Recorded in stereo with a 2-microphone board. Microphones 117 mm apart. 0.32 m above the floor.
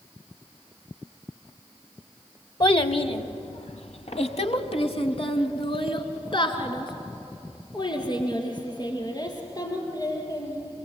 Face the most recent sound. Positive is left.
turn(degrees=30)  # may be behind; listen again after turning